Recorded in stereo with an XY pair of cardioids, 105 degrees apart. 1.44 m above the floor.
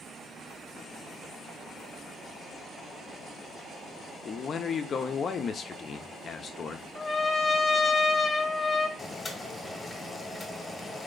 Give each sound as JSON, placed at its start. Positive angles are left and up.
{"t": 4.2, "sound": "a man speaking", "azimuth_deg": 45, "distance_m": 0.7}
{"t": 7.0, "sound": "a trumpet", "azimuth_deg": 25, "distance_m": 1.3}
{"t": 9.0, "sound": "boiling", "azimuth_deg": 25, "distance_m": 1.3}